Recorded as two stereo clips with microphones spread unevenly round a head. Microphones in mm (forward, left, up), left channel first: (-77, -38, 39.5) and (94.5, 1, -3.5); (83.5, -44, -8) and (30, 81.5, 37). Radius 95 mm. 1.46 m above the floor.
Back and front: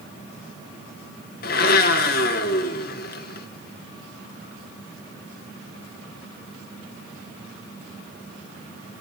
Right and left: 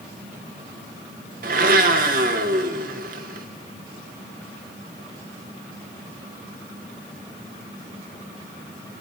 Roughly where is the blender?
Behind left.